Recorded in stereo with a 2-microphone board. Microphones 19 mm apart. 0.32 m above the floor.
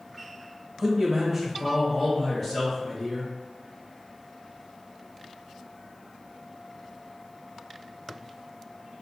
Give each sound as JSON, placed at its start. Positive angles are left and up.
{"t": 0.8, "sound": "a man speaking", "side_deg": -15, "distance_m": 1.0}